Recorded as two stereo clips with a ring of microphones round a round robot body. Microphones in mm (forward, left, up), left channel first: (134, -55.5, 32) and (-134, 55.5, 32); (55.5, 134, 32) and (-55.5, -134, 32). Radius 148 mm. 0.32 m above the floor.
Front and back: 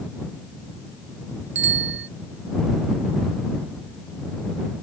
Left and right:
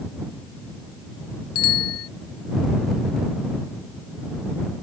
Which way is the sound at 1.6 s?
105° left.